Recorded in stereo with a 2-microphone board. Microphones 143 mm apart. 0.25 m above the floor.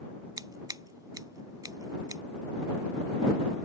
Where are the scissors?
25° right (ahead or behind).